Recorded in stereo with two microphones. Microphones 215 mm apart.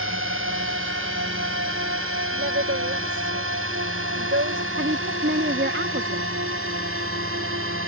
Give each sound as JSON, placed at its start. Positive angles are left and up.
{"t": 0.0, "sound": "a drone", "side_deg": -75}
{"t": 2.3, "sound": "a woman speaking", "side_deg": -70}
{"t": 4.8, "sound": "a woman speaking", "side_deg": -60}